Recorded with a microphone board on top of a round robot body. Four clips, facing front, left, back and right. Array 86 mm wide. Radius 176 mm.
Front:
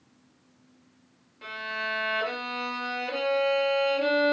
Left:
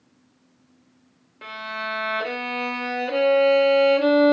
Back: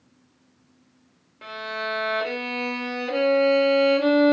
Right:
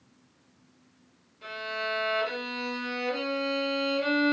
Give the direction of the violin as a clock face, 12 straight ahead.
8 o'clock.